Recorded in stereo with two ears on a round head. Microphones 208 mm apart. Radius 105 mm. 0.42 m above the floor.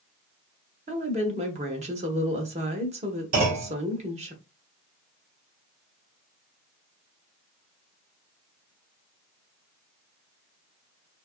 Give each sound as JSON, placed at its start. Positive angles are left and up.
{"t": 0.9, "sound": "a woman speaking", "side_deg": -25, "distance_m": 0.9}
{"t": 3.3, "sound": "a clunk", "side_deg": -35, "distance_m": 2.0}